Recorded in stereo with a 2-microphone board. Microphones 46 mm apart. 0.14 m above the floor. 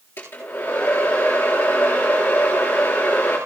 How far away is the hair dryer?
About 10 m.